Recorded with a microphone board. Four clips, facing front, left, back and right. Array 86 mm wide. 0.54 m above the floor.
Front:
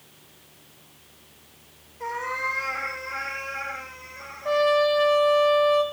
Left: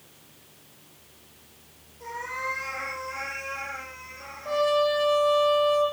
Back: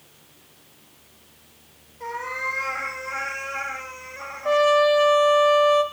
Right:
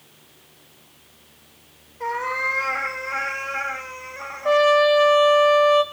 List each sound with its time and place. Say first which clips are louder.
2.0 s a cat meowing: right 8 dB, front 1 dB; 85° right, 4 m; by 4.7 s 125° right, 4 m
4.5 s a trumpet: right 7 dB, back 3 dB; 110° right, 2.5 m